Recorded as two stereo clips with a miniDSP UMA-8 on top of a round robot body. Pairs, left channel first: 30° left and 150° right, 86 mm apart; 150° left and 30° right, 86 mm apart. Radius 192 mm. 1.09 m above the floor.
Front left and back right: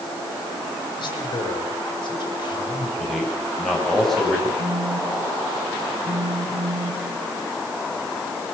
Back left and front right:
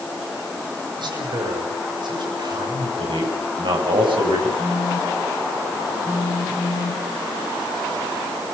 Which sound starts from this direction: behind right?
A phone buzzing, at 4.6 s.